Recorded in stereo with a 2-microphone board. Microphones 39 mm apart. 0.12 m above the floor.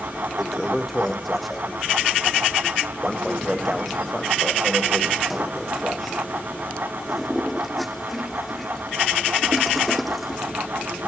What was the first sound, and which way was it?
A toilet flushing, centre (ahead or behind).